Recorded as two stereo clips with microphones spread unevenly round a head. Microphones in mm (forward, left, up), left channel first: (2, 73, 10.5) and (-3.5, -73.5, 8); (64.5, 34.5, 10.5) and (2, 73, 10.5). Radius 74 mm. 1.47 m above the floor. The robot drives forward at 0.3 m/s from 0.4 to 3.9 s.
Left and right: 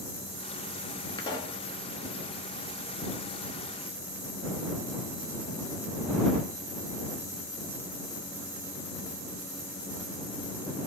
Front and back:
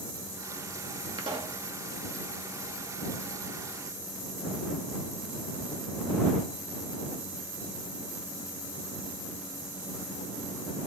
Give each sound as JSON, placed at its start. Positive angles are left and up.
{"t": 1.2, "sound": "a pop", "azimuth_deg": 150, "distance_m": 0.7}